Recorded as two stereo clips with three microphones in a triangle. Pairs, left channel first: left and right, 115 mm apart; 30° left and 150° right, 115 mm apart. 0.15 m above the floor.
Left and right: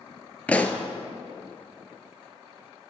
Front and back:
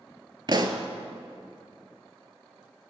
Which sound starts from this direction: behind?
A pop, at 0.5 s.